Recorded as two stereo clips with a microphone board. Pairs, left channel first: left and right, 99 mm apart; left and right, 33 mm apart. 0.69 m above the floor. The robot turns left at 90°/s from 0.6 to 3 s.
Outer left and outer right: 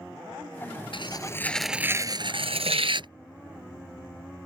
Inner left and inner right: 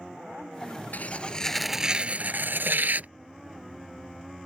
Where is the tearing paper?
65° left; by 3.1 s 125° right.